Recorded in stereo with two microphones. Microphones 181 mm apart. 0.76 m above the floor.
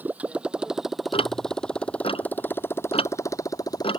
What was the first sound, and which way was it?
A motorcycle, 10° right (ahead or behind).